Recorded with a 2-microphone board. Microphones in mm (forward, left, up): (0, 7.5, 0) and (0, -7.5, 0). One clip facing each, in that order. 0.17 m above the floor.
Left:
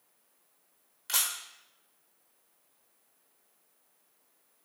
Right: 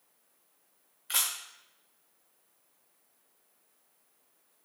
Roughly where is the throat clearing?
No throat clearing in this recording.